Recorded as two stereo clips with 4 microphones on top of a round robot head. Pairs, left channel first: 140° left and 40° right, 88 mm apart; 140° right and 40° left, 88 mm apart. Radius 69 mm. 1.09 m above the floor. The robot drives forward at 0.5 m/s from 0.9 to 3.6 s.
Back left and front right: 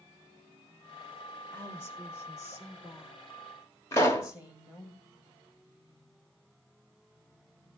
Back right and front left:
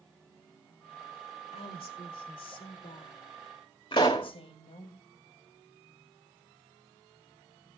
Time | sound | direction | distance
1.5 | a woman speaking | 150° right | 0.9 m
3.9 | a pop | 165° right | 0.6 m